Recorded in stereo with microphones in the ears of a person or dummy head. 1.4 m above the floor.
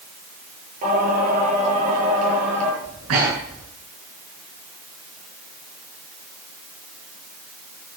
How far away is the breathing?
About 8.5 m.